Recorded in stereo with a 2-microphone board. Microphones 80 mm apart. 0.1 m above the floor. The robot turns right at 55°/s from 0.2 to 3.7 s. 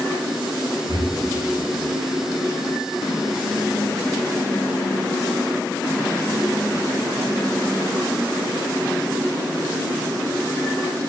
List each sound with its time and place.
0.9 s breathing: 80° right, 5 m; by 1.1 s 65° right (ahead or behind), 5 m